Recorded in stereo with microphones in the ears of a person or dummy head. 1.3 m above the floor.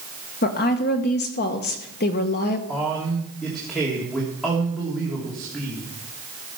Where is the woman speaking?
45° left (ahead or behind), 1.4 m.